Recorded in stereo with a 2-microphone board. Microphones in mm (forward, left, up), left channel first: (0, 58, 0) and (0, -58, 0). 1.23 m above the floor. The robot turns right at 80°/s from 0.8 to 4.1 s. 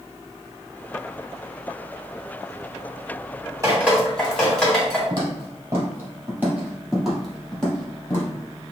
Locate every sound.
3.6 s dripping: 30° right (ahead or behind), 1.5 m; by 5.0 s 5° left (ahead or behind), 1.5 m
5.1 s footsteps: 40° right (ahead or behind), 1.7 m; by 8.3 s 20° left (ahead or behind), 1.7 m